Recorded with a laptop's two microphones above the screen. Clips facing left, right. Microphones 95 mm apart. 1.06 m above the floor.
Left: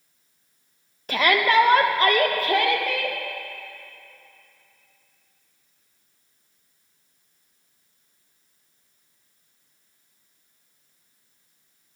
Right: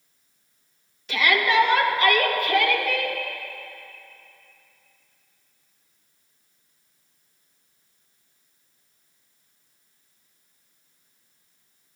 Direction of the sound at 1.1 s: 45° left (ahead or behind).